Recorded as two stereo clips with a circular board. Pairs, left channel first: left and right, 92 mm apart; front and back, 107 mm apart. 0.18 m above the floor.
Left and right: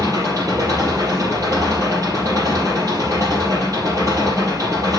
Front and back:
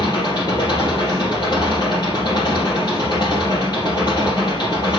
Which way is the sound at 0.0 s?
45° right.